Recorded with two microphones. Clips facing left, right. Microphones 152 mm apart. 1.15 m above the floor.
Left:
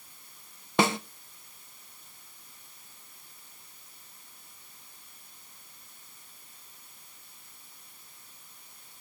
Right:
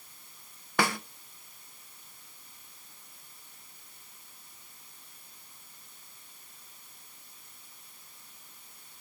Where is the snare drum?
25° left (ahead or behind), 0.6 m.